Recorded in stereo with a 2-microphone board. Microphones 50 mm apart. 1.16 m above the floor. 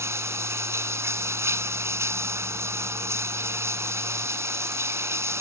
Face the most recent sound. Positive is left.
turn(degrees=-80)